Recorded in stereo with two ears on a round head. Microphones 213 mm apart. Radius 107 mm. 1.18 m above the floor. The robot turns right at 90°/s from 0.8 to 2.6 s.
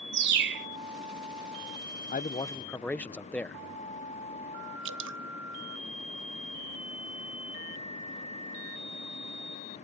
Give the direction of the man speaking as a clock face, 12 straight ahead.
8 o'clock.